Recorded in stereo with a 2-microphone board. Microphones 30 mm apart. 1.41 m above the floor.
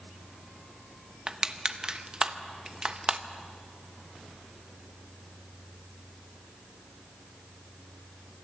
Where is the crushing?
30° right (ahead or behind), 1.0 m.